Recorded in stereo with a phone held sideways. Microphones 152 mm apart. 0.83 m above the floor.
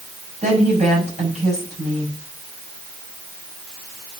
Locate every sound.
0.4 s a woman speaking: 50° right (ahead or behind), 6 m